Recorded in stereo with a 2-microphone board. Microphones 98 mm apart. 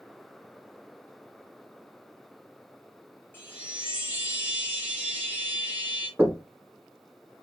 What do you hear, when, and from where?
3.3 s a chime: 20° left (ahead or behind), 1.7 m
6.2 s knocking: 25° right (ahead or behind), 1.2 m